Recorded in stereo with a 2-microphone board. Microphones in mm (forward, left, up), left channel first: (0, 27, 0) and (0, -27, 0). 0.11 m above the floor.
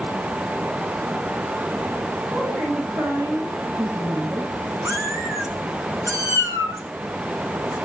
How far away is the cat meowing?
About 6 m.